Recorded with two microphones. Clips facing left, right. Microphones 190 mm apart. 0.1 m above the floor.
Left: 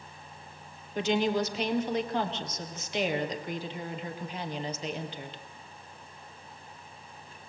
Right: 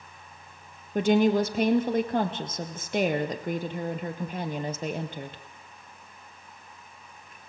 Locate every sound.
0.9 s a woman speaking: 55° right (ahead or behind), 2 m